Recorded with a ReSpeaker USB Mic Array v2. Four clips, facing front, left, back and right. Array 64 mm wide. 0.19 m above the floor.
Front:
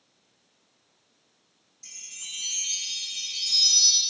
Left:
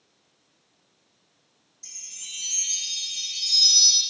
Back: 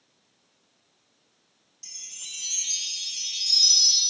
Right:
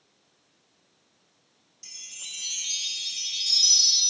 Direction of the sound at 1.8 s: 130° right.